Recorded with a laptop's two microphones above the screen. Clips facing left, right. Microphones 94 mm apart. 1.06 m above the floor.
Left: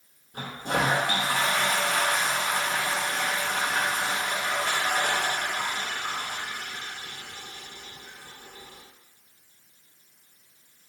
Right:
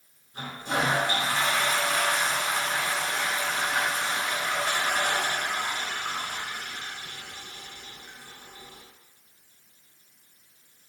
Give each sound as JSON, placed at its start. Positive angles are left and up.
{"t": 0.3, "sound": "a toilet flushing", "side_deg": 60, "distance_m": 0.7}